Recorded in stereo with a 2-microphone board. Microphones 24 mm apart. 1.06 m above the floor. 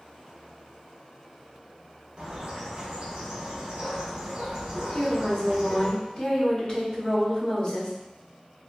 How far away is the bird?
About 0.8 m.